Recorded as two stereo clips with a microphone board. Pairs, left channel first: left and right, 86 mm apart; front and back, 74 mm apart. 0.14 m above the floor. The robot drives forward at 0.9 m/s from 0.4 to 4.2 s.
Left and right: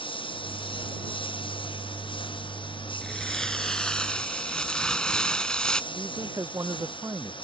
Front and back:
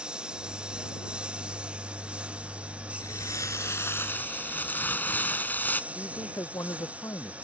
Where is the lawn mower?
100° left; by 7.5 s 110° left.